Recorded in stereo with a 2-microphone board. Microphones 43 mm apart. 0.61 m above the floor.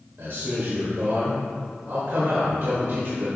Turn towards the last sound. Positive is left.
turn(degrees=-65)  # may be behind; listen again after turning